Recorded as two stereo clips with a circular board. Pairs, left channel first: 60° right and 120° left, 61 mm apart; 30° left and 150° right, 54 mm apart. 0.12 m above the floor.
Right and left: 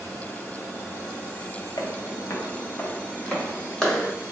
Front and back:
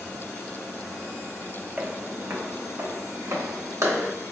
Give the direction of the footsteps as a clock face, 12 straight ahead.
3 o'clock.